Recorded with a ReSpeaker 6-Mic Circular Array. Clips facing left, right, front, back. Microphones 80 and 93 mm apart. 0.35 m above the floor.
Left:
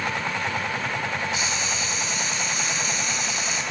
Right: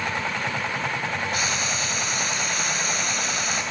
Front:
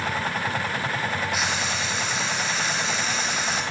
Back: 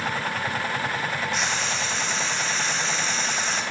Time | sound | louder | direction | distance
1.3 | frying | right 1 dB, even | 80° right | 2.0 m